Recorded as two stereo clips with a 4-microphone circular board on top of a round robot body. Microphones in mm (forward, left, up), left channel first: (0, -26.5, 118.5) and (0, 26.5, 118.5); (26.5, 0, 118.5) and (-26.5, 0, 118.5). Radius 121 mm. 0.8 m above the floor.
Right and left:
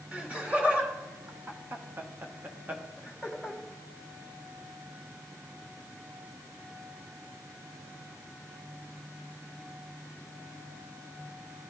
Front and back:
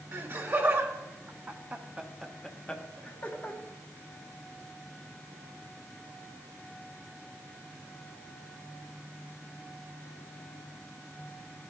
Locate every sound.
0.1 s laughter: 150° left, 2.0 m; by 3.6 s 15° left, 1.2 m